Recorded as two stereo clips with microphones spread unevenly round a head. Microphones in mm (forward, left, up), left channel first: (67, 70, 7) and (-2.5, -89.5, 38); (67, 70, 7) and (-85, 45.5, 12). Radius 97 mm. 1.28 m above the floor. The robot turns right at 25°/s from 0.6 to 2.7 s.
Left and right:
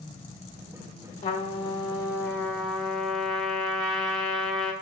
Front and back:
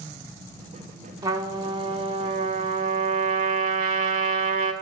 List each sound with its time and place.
1.2 s a trumpet: 125° left, 1.2 m; by 4.7 s 160° left, 1.2 m